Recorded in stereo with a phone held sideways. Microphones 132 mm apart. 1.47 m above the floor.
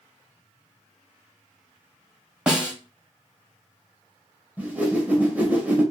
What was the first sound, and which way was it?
A snare drum, 10° right (ahead or behind).